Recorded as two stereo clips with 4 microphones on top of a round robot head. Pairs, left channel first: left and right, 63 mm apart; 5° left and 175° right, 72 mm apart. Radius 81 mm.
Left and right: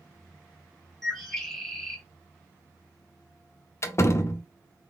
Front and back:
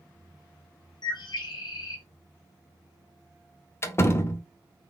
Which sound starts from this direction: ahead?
A bird, at 1.0 s.